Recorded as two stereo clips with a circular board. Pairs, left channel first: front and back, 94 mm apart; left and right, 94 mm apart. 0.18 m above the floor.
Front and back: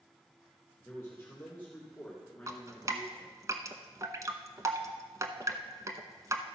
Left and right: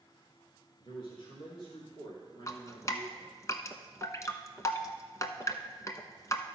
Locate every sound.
0.8 s a man speaking: 60° left, 3.5 m; by 3.3 s 80° left, 2.5 m
2.5 s dripping: 135° left, 0.7 m